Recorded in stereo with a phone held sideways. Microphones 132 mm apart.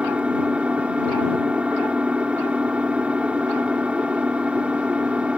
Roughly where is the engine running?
Centre.